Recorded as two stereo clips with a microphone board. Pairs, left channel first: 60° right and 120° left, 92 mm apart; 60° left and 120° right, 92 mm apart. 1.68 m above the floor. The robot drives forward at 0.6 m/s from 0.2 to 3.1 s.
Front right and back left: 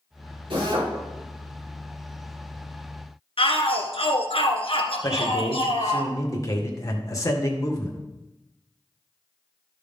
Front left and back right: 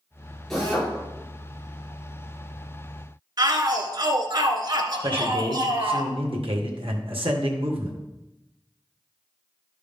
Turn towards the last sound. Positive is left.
turn(degrees=-115)